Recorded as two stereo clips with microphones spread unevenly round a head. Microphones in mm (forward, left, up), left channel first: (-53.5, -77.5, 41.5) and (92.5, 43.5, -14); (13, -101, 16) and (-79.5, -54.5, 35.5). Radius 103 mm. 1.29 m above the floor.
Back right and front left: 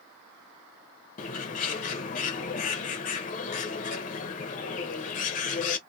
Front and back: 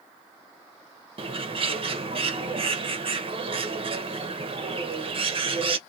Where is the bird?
175° left, 0.7 m.